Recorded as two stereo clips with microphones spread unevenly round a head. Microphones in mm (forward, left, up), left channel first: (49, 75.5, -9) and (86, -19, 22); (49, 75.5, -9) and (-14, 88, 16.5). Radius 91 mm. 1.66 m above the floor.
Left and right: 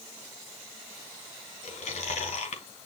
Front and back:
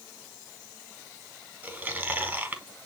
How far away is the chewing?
About 2.5 m.